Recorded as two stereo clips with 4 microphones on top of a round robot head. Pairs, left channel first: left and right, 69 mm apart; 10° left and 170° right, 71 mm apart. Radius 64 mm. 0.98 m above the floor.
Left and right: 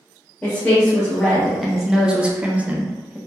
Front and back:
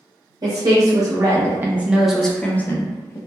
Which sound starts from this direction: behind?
A woman speaking, at 0.4 s.